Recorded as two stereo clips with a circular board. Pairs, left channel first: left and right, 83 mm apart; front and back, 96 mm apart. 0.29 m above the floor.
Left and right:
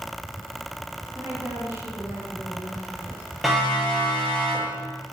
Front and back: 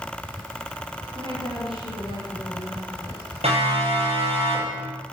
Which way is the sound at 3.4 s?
Straight behind.